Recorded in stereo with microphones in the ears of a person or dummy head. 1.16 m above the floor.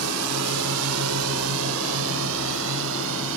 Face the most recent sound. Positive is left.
turn(degrees=-75)  # may be behind; listen again after turning